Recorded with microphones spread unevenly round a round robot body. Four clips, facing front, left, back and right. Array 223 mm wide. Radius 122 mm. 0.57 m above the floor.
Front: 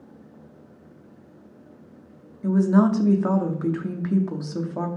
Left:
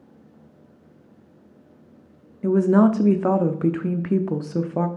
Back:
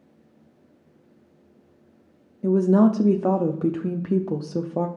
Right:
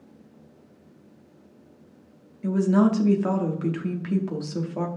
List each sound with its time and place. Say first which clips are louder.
2.4 s a woman speaking: left 4 dB, back 1 dB; 125° left, 0.7 m